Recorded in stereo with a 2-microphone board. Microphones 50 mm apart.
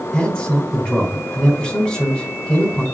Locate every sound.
0.1 s a man speaking: 20° left (ahead or behind), 4 m